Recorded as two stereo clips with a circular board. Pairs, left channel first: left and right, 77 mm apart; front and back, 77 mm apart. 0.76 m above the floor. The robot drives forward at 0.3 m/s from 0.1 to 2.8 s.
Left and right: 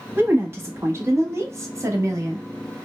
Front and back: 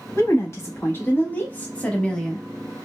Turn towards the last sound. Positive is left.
turn(degrees=-85)